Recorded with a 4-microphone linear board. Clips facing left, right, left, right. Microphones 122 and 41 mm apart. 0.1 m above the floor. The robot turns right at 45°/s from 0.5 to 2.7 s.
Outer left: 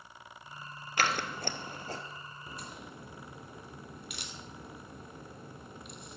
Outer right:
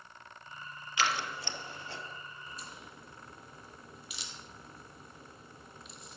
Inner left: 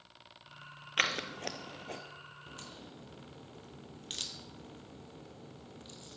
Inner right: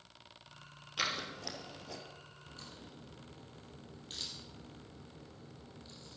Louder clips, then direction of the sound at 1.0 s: Outer left 1 dB, inner left 5 dB; 55° left (ahead or behind).